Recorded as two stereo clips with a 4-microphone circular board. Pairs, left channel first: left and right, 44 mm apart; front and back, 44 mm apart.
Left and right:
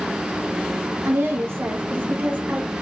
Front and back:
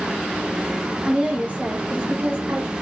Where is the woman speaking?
110° right, 0.9 m; by 2.7 s 145° right, 1.4 m.